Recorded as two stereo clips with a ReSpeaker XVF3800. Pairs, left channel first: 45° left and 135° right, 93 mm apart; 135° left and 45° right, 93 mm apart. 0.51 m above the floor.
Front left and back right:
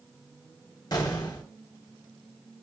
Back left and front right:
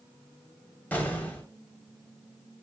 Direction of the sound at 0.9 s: 70° left.